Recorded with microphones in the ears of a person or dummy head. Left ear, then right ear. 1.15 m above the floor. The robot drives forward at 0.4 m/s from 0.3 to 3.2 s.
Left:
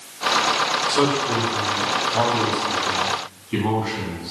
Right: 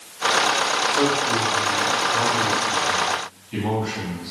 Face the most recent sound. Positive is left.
turn(degrees=10)  # may be behind; listen again after turning